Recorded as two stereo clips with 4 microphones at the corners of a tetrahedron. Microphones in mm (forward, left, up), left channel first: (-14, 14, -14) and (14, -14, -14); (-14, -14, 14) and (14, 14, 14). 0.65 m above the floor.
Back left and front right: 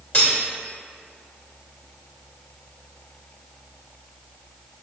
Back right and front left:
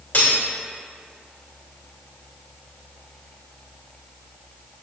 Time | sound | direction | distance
0.1 | cutlery clinking | 175° left | 1.4 m